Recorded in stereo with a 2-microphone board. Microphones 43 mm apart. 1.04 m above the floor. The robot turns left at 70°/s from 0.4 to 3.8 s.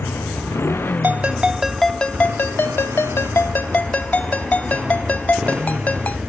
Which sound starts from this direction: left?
A motorcycle, at 0.0 s.